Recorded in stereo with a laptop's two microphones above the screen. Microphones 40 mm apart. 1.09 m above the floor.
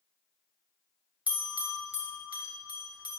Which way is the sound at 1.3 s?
35° right (ahead or behind).